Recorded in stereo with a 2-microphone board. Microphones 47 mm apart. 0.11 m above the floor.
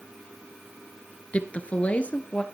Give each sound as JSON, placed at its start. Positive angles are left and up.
{"t": 1.3, "sound": "a woman speaking", "side_deg": 35, "distance_m": 1.3}